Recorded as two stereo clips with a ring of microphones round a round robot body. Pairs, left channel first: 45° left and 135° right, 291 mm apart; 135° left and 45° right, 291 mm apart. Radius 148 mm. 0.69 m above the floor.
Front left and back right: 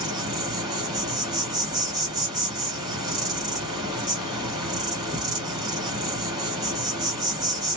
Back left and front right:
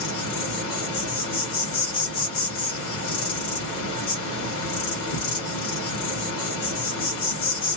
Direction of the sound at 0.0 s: 150° left.